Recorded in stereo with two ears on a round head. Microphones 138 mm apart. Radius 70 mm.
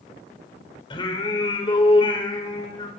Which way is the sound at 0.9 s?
35° left (ahead or behind).